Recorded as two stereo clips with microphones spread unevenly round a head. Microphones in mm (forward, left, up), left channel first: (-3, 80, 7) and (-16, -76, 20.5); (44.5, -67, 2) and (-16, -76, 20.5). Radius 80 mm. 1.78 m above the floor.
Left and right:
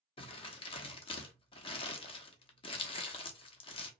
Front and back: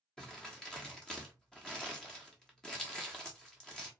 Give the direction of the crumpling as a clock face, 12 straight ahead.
8 o'clock.